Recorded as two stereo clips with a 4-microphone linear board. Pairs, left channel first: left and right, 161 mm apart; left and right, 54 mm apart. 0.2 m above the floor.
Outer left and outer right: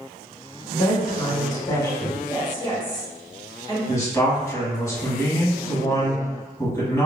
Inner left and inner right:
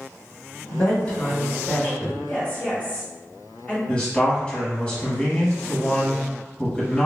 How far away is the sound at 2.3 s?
About 1.8 m.